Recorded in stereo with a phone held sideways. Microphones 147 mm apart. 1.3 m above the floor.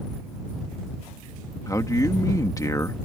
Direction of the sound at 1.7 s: 25° left (ahead or behind).